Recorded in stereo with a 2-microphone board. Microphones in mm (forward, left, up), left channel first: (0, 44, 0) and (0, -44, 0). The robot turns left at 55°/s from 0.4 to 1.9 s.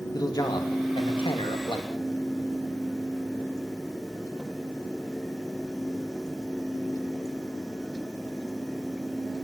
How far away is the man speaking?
About 2.5 m.